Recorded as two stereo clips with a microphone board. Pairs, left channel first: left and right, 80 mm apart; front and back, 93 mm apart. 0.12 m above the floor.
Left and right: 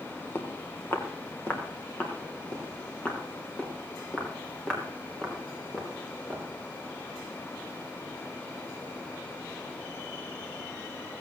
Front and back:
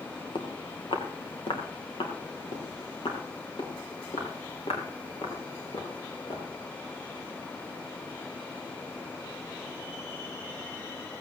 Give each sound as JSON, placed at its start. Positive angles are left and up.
{"t": 0.3, "sound": "footsteps", "azimuth_deg": 30, "distance_m": 3.0}